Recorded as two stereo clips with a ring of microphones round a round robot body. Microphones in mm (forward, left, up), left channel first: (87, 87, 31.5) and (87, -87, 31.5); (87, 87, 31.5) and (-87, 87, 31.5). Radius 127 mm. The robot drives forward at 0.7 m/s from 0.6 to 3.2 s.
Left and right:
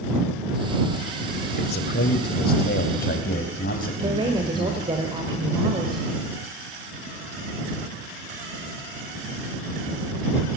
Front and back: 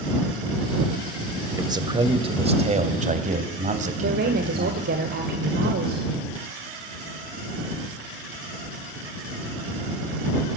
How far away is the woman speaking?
About 1.8 m.